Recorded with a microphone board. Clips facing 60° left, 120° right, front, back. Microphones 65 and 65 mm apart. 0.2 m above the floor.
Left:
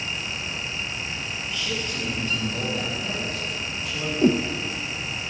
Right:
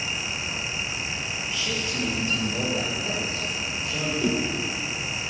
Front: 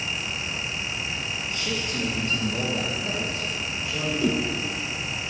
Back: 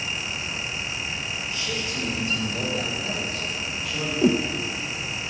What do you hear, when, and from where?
1.5 s a man speaking: 35° right, 4.5 m; by 4.1 s 70° right, 6.5 m
4.2 s a whoosh: 115° left, 1.0 m